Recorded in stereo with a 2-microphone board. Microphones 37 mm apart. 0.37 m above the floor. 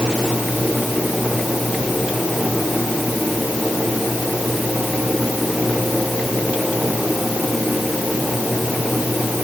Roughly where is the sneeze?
I don't hear a sneeze.